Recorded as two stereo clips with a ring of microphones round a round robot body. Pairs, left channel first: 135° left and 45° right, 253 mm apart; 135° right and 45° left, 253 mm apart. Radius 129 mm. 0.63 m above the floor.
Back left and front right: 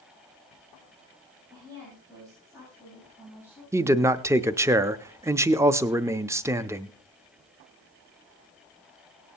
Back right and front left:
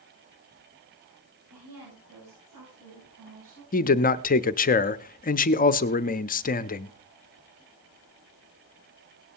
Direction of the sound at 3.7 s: 115° right.